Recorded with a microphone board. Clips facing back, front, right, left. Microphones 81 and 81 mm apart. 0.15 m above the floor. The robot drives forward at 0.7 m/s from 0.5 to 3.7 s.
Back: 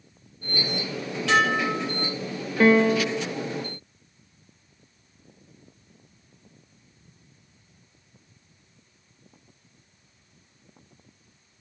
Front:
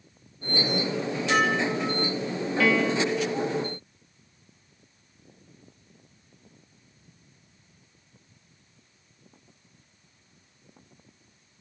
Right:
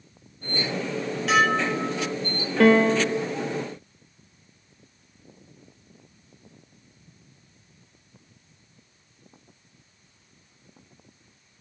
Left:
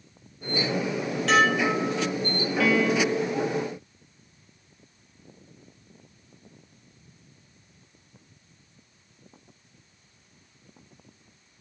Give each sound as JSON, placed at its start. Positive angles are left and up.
{"t": 1.3, "sound": "dishes clattering", "azimuth_deg": -175, "distance_m": 3.5}
{"t": 2.6, "sound": "a piano", "azimuth_deg": -125, "distance_m": 0.6}